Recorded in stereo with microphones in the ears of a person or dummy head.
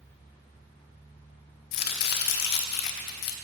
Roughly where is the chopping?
Left.